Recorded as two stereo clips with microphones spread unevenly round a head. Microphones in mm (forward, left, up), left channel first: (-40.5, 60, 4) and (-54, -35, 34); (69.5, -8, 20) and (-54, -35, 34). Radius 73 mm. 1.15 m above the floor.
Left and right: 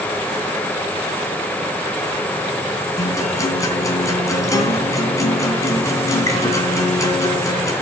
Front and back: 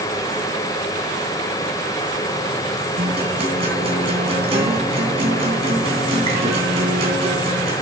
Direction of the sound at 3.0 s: 145° left.